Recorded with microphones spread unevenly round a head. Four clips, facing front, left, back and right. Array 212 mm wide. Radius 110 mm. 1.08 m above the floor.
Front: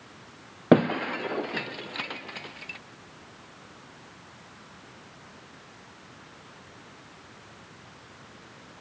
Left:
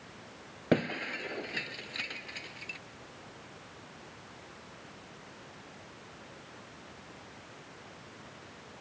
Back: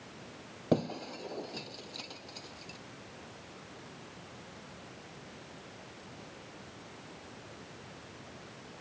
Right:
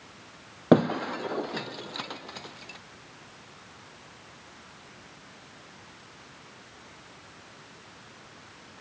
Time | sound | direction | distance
0.7 | breaking glass | 35° right | ?